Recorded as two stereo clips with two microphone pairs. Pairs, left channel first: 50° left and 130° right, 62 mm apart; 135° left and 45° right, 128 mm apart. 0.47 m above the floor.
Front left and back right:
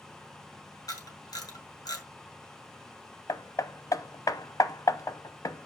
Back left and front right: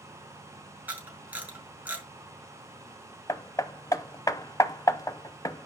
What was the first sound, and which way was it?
A camera shutter, 30° left.